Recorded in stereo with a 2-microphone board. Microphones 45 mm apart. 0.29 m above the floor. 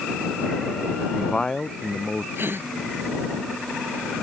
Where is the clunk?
I don't hear a clunk.